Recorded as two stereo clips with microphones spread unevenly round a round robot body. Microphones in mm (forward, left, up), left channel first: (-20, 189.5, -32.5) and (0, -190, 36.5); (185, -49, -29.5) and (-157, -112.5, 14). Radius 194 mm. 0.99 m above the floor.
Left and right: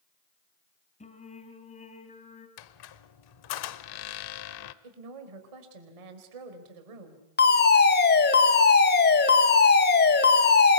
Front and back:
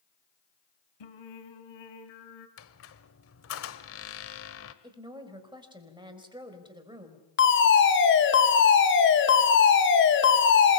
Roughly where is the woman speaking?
Right.